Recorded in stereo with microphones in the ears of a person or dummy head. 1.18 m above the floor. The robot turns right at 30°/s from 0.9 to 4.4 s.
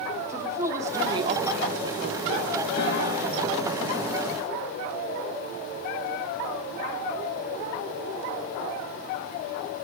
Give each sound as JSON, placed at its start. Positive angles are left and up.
{"t": 0.3, "sound": "a woman speaking", "azimuth_deg": -165, "distance_m": 0.9}
{"t": 2.8, "sound": "a piano", "side_deg": 60, "distance_m": 4.5}